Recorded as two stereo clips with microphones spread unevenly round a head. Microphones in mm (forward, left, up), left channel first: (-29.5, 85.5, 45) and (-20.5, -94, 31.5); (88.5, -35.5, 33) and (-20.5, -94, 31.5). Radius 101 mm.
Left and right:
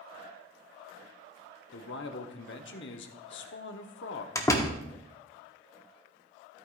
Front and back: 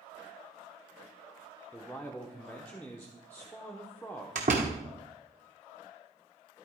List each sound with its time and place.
1.7 s a man speaking: 105° left, 0.9 m
4.3 s a door slam: 160° left, 1.0 m